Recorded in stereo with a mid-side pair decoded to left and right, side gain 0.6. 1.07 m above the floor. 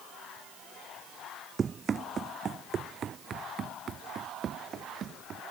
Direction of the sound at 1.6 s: 30° right.